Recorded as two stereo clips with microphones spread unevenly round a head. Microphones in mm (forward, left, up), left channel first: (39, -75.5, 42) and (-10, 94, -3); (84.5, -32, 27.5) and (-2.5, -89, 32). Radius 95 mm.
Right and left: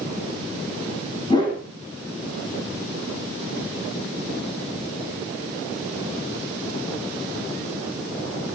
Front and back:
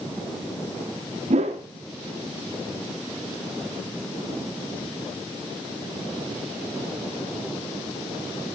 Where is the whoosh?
140° right, 3.5 m.